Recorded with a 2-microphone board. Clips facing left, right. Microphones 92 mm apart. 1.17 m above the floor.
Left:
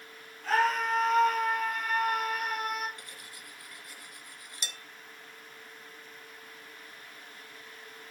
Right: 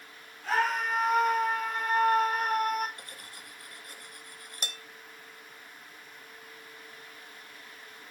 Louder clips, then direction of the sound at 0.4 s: Left 2 dB; centre (ahead or behind).